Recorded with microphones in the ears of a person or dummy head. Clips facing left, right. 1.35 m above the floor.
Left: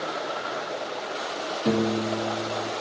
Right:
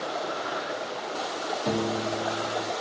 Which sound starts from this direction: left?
A piano, at 1.6 s.